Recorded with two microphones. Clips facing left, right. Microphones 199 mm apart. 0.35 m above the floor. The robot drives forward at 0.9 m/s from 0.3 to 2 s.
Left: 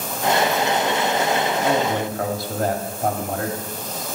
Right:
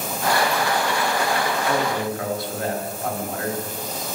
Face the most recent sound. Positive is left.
turn(degrees=40)  # may be behind; listen again after turning